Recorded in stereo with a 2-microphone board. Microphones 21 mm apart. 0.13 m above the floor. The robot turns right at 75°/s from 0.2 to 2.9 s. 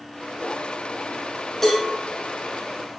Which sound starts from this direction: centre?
A cowbell, at 1.6 s.